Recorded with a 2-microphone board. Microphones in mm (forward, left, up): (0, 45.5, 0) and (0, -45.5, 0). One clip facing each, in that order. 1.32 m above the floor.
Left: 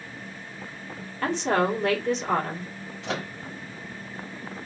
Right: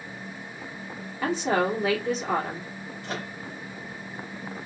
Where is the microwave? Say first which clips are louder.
Left 4 dB; 75° left (ahead or behind), 1.0 m.